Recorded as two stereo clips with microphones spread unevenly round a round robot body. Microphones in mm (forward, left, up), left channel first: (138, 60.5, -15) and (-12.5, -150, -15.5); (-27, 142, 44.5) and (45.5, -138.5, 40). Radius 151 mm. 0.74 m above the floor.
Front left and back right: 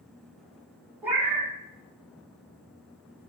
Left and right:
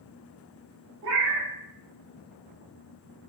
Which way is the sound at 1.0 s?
45° right.